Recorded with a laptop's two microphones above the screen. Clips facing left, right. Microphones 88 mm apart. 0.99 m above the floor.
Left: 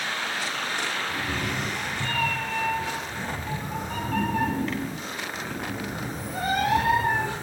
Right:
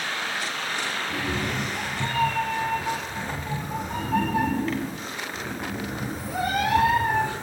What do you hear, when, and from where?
1.1 s a cat meowing: 30° right (ahead or behind), 2.5 m; by 7.3 s centre (ahead or behind), 5.5 m